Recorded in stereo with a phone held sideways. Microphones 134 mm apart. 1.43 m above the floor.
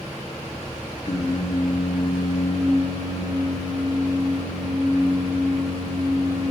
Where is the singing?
60° left (ahead or behind), 0.8 m.